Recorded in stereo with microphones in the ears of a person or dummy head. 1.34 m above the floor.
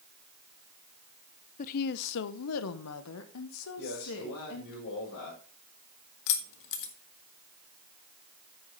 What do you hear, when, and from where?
1.6 s a woman speaking: 40° left (ahead or behind), 0.5 m; by 4.8 s 70° left (ahead or behind), 1.9 m
3.8 s a man speaking: 70° left (ahead or behind), 4.5 m
6.3 s keys jangling: 65° left (ahead or behind), 1.4 m